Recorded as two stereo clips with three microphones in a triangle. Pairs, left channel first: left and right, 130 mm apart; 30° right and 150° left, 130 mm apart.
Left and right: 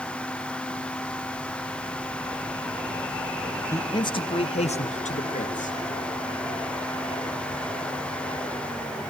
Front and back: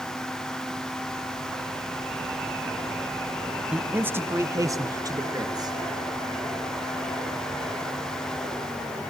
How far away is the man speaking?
About 1.1 m.